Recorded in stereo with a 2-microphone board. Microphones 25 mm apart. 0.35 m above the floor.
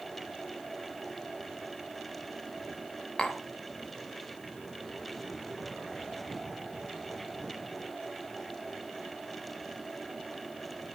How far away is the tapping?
About 0.8 m.